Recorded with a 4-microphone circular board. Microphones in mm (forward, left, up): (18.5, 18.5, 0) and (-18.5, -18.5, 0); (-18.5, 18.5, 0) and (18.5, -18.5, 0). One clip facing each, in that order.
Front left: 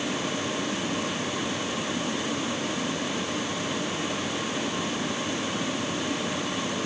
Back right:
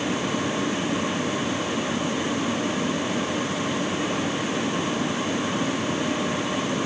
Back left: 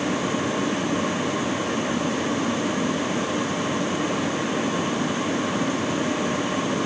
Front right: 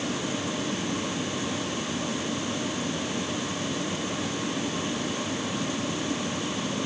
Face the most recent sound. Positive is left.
No sound to turn to.